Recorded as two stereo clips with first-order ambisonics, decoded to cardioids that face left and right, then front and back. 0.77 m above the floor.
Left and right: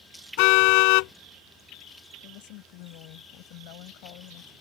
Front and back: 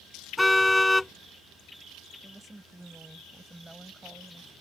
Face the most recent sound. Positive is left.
turn(degrees=95)